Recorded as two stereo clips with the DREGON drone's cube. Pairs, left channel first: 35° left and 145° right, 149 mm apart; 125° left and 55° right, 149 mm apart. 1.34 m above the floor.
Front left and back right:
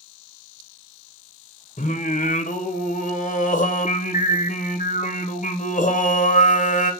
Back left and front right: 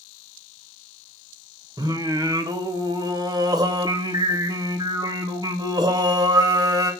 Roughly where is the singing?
Ahead.